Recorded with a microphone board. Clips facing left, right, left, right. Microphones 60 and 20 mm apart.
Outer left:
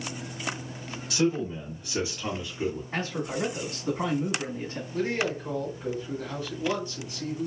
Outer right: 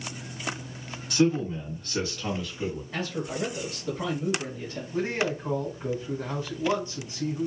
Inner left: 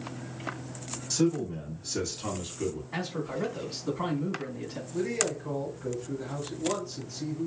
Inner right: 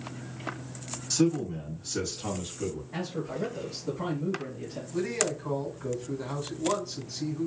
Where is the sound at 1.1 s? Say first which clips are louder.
Outer right 3 dB, inner right 1 dB; centre (ahead or behind), 1.6 m; by 2.8 s 30° left (ahead or behind), 1.7 m.